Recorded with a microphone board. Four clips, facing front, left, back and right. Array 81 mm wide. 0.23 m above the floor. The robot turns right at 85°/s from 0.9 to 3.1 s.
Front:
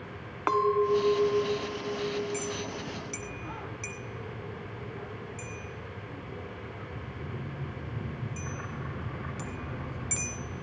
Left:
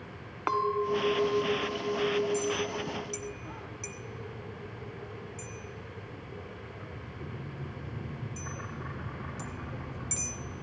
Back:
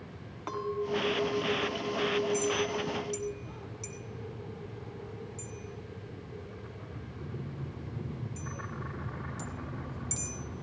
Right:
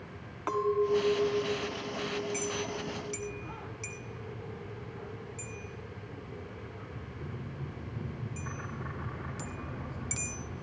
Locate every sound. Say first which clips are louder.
0.5 s a clink: even, front 9 dB; 25° left, 1.2 m; by 3.3 s 145° right, 1.2 m
2.3 s a clink: left 4 dB, back 5 dB; 80° right, 1.2 m; by 10.6 s 15° right, 1.2 m